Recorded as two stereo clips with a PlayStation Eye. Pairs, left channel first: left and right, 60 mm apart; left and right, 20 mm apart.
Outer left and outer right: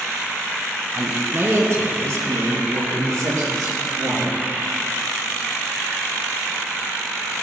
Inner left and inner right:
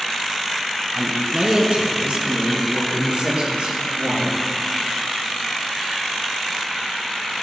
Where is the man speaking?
30° right (ahead or behind), 1.8 m; by 4.3 s 75° right (ahead or behind), 5.5 m.